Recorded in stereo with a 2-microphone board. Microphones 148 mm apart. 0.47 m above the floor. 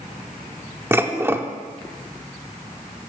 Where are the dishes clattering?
15° right (ahead or behind), 0.5 m.